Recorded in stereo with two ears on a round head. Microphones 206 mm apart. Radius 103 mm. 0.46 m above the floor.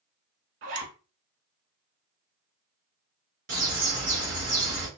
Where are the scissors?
No scissors in this recording.